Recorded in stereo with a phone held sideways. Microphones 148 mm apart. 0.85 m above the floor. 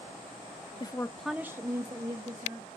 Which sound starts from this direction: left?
A woman speaking, at 0.8 s.